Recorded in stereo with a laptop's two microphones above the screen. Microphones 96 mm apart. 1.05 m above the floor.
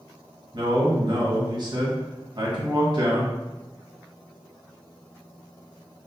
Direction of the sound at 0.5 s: 50° right (ahead or behind).